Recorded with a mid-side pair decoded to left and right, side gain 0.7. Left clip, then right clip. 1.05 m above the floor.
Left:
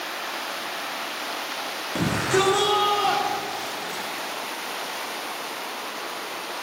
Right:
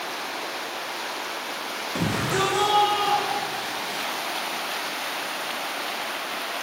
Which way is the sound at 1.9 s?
10° left.